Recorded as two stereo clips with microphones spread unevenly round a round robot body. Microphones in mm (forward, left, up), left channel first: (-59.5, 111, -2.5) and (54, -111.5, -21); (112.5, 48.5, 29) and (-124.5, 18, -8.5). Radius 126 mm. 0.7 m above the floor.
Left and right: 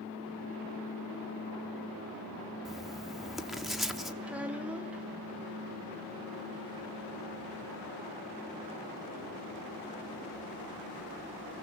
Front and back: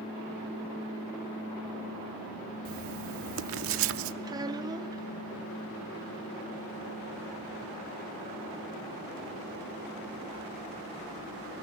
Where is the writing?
150° right, 0.8 m.